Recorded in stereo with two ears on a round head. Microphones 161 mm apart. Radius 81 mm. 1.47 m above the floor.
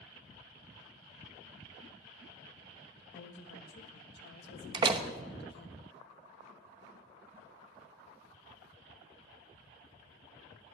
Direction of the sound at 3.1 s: 70° left (ahead or behind).